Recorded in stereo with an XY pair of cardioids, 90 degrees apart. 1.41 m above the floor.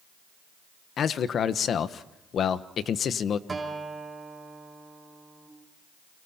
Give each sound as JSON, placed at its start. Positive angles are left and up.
{"t": 1.0, "sound": "a man speaking", "azimuth_deg": 65, "distance_m": 1.2}
{"t": 3.5, "sound": "a guitar", "azimuth_deg": -25, "distance_m": 5.0}